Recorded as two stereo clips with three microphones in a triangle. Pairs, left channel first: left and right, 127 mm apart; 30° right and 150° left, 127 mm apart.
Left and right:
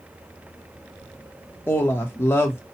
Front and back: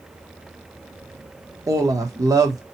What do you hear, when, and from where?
1.7 s a woman speaking: 140° left, 0.9 m